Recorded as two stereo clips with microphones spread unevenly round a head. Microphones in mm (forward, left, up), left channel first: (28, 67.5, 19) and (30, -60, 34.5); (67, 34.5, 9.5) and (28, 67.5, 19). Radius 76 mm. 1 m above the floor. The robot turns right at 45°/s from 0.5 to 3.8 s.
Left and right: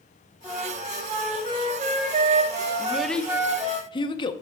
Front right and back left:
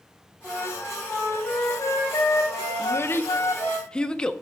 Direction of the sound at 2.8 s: 10° right.